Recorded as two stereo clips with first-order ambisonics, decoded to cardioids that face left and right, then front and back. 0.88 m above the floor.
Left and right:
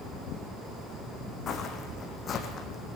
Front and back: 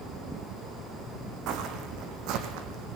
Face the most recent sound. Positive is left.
turn(degrees=155)